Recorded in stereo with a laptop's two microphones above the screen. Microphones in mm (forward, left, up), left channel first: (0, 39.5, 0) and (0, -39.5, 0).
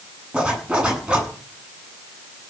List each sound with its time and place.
0.3 s a zipper: 10° right (ahead or behind), 7.5 m